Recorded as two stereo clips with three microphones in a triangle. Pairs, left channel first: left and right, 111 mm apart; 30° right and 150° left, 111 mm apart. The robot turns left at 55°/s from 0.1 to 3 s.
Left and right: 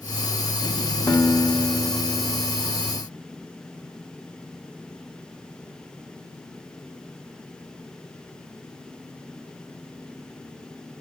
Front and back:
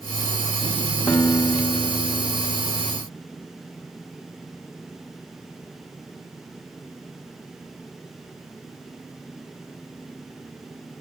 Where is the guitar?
35° left, 0.6 m; by 3.0 s 70° right, 0.6 m.